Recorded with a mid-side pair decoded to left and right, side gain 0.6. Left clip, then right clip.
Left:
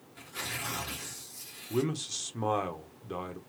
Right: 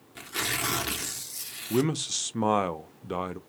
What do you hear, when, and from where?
0.1 s tearing paper: 65° right, 0.7 m
1.7 s a man speaking: 35° right, 0.5 m